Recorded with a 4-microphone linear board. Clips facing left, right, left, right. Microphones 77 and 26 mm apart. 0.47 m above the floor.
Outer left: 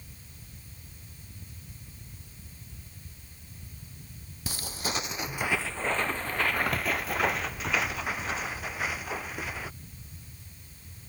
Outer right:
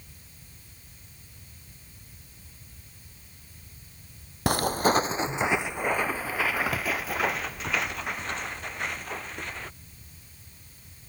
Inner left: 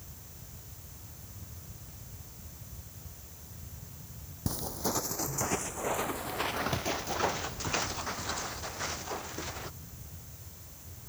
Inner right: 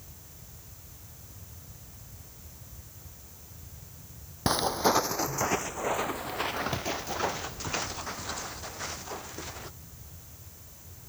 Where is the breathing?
I don't hear breathing.